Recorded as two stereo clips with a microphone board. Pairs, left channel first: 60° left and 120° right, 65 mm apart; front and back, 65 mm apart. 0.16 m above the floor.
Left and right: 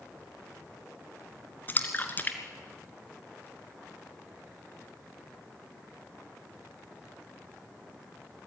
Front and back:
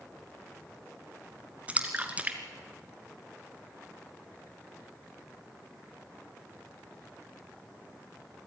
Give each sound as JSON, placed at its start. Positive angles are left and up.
{"t": 1.7, "sound": "a splash", "azimuth_deg": 115, "distance_m": 2.5}